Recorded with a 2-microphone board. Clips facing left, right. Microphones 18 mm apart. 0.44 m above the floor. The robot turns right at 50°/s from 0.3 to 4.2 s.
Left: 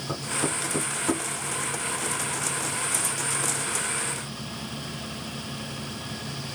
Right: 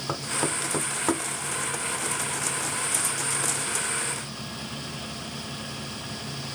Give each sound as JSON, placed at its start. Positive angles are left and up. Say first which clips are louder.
{"t": 0.1, "sound": "knocking", "louder": "even", "side_deg": -60, "distance_m": 1.8}